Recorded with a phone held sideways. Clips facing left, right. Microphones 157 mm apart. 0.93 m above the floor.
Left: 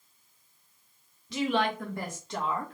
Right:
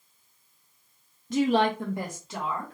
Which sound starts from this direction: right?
A woman speaking, at 1.3 s.